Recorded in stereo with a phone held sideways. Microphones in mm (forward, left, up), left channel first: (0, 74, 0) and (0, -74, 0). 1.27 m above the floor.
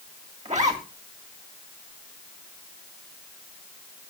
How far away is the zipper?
About 2.5 m.